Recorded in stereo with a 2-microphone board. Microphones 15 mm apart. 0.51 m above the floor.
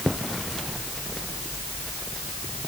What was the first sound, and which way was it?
Only background noise.